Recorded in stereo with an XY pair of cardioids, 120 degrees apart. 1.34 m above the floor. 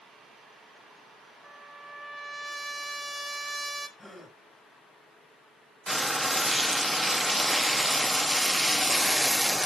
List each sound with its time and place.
1.4 s a trumpet: straight ahead, 1.8 m
4.0 s a gasp: 15° left, 4.5 m
5.9 s frying: 5° left, 0.7 m